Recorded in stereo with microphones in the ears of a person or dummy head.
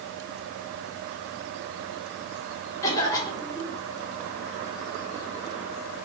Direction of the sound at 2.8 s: 20° left (ahead or behind).